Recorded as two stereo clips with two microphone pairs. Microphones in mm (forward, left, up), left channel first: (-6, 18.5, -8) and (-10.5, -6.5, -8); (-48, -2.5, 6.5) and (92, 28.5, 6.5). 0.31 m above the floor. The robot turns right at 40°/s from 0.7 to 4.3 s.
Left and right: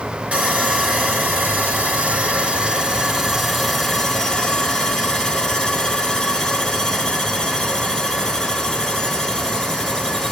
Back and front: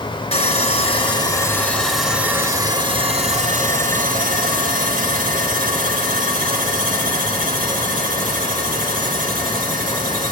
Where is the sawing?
125° right, 2.5 m; by 10.3 s 15° left, 2.5 m.